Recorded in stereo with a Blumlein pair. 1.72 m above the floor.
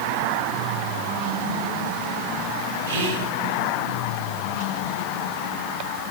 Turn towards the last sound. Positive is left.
turn(degrees=-65)